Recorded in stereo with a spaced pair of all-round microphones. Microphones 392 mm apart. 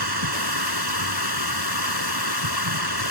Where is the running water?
65° right (ahead or behind).